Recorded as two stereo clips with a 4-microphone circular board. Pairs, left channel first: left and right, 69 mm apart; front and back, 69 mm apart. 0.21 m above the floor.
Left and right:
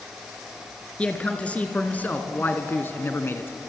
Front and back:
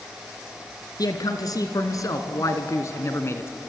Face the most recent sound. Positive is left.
turn(degrees=45)